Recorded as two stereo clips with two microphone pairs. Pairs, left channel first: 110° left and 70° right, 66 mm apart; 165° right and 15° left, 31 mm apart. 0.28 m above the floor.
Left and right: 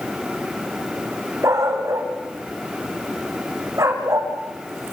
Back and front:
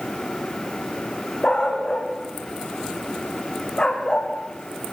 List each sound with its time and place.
1.4 s a dog barking: 105° right, 6 m